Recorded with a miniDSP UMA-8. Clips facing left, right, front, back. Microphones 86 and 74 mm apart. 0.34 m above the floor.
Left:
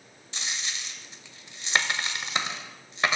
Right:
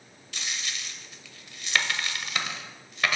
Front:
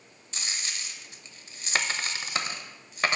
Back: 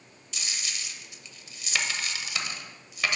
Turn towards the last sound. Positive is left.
turn(degrees=35)